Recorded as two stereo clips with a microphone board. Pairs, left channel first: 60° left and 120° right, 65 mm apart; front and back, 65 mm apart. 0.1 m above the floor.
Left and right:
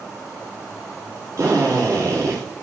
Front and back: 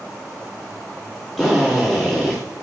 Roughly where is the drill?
Right.